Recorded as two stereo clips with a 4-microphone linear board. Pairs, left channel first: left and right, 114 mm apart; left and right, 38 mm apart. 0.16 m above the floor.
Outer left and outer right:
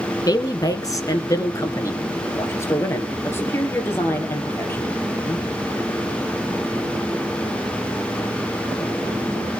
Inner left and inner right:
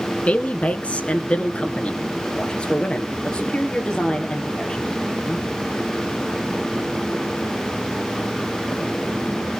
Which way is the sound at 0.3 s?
35° left (ahead or behind).